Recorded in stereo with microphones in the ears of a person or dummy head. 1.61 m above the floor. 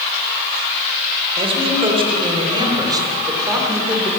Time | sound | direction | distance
1.4 | a man speaking | 35° right (ahead or behind) | 7 m